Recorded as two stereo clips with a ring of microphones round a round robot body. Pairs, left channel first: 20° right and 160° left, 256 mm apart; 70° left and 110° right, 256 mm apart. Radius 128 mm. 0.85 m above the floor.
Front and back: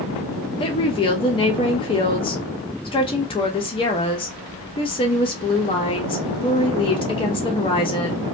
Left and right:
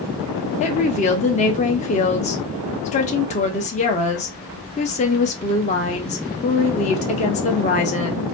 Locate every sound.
0.6 s a woman speaking: 30° left, 0.6 m